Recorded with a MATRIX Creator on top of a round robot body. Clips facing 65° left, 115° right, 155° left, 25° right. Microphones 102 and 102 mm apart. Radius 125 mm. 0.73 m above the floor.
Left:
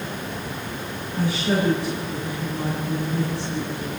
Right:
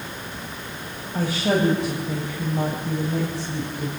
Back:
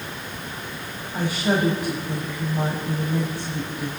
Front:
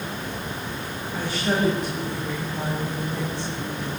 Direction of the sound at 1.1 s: 120° right.